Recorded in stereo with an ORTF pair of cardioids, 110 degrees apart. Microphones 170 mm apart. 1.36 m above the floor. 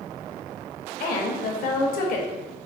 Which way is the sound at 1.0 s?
60° left.